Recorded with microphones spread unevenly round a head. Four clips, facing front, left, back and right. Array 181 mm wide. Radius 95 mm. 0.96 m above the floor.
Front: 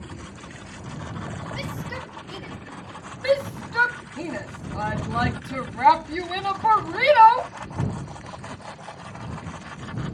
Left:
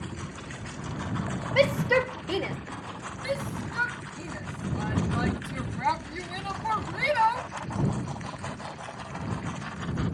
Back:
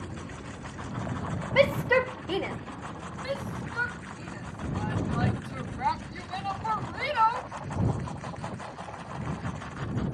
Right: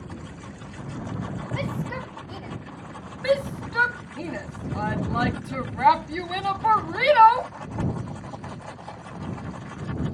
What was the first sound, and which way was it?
A shout, 135° left.